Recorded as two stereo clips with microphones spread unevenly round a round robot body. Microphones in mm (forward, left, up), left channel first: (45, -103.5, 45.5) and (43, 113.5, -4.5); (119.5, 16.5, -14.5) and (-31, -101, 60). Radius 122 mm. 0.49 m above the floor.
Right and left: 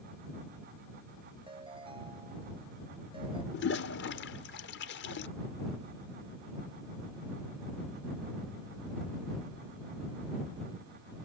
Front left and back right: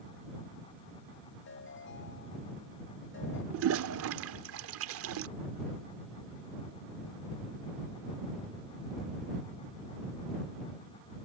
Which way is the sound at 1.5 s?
25° left.